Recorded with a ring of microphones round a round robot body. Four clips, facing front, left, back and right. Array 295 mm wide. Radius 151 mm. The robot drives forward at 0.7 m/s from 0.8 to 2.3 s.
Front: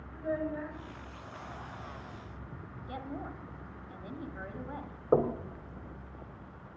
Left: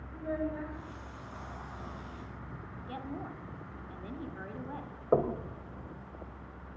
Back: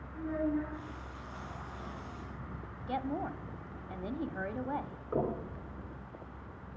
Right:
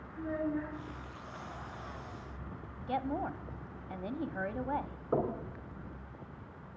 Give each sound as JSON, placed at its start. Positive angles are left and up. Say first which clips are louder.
{"t": 0.1, "sound": "a child speaking", "louder": "even, back 1 dB", "azimuth_deg": 25, "distance_m": 5.5}
{"t": 2.9, "sound": "a woman speaking", "louder": "right 7 dB, back 6 dB", "azimuth_deg": -125, "distance_m": 1.0}
{"t": 5.1, "sound": "knocking", "louder": "left 5 dB, front 6 dB", "azimuth_deg": 40, "distance_m": 2.5}